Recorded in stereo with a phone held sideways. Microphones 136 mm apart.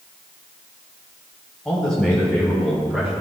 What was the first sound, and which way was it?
A man speaking, 5° left (ahead or behind).